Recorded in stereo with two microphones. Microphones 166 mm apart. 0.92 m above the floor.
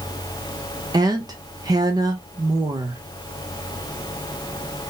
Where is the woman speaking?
25° right (ahead or behind), 0.7 m.